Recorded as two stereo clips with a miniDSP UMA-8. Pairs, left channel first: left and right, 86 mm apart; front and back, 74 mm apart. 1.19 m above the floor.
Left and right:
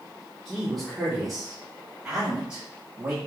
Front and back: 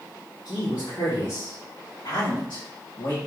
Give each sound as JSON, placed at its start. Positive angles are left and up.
{"t": 0.5, "sound": "a man speaking", "azimuth_deg": 5, "distance_m": 3.0}